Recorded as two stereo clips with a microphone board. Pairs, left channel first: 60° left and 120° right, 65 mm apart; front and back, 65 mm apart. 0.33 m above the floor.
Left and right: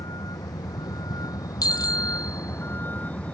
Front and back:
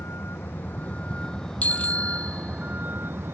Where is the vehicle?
50° left; by 3.3 s 130° left.